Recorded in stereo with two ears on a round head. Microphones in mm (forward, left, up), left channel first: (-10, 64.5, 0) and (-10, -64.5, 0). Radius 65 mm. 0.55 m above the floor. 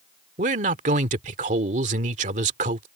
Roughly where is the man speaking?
Right.